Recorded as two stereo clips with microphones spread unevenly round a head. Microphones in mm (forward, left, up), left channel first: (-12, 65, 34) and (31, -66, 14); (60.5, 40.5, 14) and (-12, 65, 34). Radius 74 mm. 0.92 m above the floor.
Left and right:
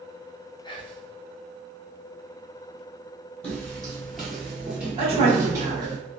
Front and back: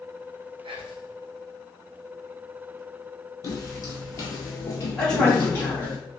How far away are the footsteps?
About 1.6 m.